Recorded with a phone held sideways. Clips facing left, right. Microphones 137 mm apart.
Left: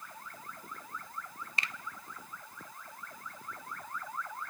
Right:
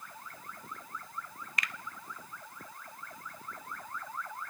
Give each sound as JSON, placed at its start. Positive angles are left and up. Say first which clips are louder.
{"t": 1.6, "sound": "a finger snap", "louder": "right 1 dB", "side_deg": 30, "distance_m": 1.0}